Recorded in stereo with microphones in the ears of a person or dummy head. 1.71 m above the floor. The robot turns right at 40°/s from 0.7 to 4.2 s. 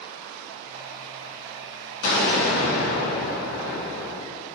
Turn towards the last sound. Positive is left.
turn(degrees=155)